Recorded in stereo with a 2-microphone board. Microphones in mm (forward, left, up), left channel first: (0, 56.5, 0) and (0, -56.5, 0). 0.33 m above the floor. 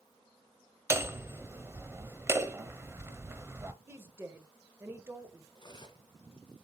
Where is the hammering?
20° right (ahead or behind), 0.7 m.